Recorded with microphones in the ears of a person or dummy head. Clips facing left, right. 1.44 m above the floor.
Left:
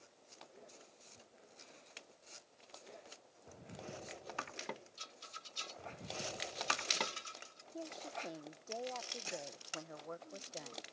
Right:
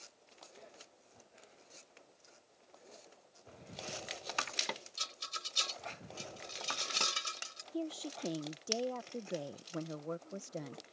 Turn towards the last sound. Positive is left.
turn(degrees=-45)  # may be behind; listen again after turning